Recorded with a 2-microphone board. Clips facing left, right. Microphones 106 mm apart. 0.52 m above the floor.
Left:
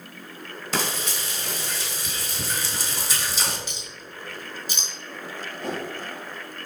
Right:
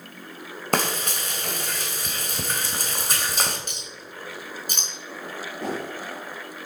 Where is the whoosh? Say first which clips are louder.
Right 1 dB; 85° right, 6 m.